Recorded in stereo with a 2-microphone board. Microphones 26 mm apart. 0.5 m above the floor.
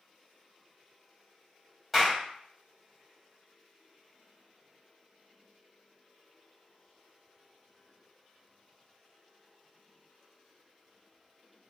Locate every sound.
1.9 s a clap: 5° right (ahead or behind), 1.4 m